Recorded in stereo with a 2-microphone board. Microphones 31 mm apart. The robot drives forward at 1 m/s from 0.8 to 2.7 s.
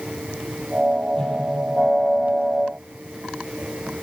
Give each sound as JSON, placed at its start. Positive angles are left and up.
{"t": 1.1, "sound": "a whoosh", "side_deg": 20, "distance_m": 7.0}